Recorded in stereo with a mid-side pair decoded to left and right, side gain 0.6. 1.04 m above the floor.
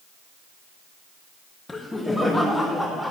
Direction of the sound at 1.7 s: 20° left.